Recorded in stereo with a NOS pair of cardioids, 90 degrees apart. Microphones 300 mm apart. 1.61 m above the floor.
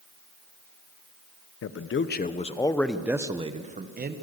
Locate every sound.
1.6 s a man speaking: 50° left, 1.3 m; by 4.2 s 30° right, 1.8 m